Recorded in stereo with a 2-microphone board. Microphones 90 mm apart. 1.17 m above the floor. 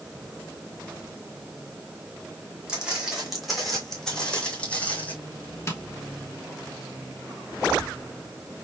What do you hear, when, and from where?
2.7 s footsteps: 10° right (ahead or behind), 2.5 m; by 5.2 s 20° left (ahead or behind), 2.5 m
5.7 s tapping: 30° left (ahead or behind), 1.1 m